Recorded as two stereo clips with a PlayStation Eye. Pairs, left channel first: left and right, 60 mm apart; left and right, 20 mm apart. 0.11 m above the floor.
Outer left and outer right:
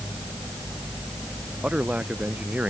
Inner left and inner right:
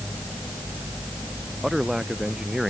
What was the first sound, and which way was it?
A man speaking, 20° right (ahead or behind).